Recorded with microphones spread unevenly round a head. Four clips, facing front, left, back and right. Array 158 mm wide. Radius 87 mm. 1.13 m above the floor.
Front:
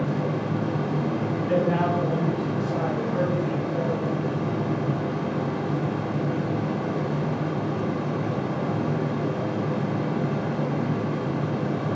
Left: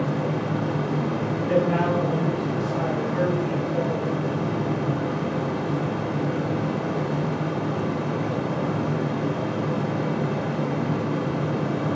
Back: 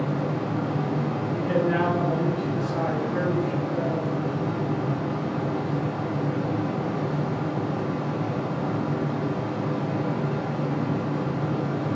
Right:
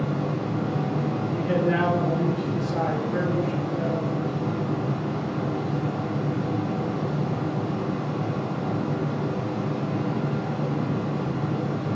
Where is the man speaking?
120° right, 2 m.